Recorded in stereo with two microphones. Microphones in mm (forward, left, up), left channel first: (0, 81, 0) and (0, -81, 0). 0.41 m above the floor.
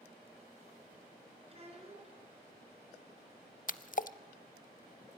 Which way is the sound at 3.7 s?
55° left (ahead or behind).